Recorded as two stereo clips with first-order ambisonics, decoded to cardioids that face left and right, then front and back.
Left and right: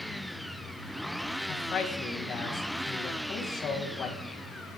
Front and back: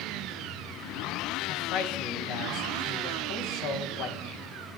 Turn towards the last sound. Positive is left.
turn(degrees=30)